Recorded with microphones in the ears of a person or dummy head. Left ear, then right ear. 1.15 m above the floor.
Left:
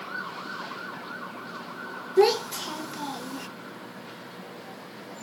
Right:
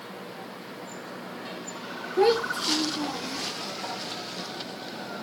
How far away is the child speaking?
About 1.0 m.